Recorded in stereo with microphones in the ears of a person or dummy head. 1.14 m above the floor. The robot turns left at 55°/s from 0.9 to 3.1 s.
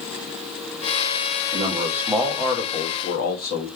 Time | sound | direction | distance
1.5 | a man speaking | 150° right | 1.3 m